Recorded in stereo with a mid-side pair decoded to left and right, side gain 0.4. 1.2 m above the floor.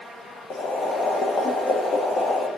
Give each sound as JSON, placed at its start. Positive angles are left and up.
{"t": 0.5, "sound": "boiling", "azimuth_deg": 60, "distance_m": 1.0}